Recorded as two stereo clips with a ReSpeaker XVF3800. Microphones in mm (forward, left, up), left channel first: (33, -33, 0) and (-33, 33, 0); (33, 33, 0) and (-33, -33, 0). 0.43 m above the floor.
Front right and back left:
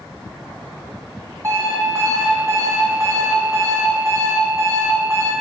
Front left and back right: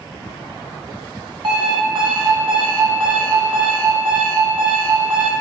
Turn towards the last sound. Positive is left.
turn(degrees=-165)